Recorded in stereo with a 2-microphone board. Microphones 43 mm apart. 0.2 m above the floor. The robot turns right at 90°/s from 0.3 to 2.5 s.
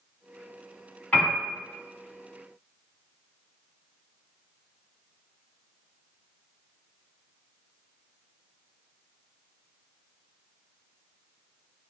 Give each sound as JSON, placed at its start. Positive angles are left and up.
{"t": 1.1, "sound": "a piano", "side_deg": 35, "distance_m": 2.0}